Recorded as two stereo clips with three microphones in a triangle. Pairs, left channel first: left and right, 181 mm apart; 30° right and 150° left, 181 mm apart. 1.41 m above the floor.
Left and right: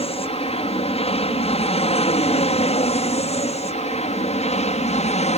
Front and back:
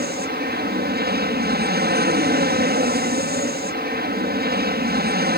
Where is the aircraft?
140° left; by 5.4 s 135° left.